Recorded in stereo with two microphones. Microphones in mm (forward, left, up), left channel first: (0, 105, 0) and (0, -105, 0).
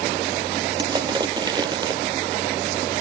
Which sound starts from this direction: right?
Crushing, at 0.8 s.